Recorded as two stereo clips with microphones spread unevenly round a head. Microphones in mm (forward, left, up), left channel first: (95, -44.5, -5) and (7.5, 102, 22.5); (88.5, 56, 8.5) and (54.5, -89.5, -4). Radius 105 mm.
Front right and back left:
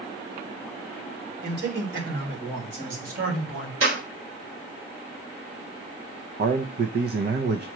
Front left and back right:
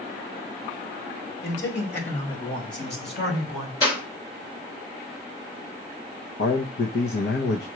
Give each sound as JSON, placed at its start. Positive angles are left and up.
{"t": 1.4, "sound": "a man speaking", "azimuth_deg": 95, "distance_m": 3.5}
{"t": 3.8, "sound": "a clap", "azimuth_deg": 145, "distance_m": 4.0}
{"t": 6.4, "sound": "a man speaking", "azimuth_deg": 95, "distance_m": 0.8}